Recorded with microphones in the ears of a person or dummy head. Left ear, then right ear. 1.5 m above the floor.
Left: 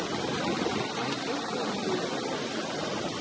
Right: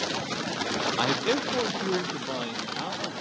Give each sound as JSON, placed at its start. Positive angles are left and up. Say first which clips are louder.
{"t": 1.0, "sound": "a man speaking", "louder": "right 6 dB", "side_deg": -50, "distance_m": 0.6}